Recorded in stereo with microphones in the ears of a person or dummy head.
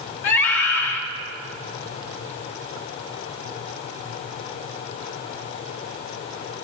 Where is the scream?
75° left (ahead or behind), 3.5 m.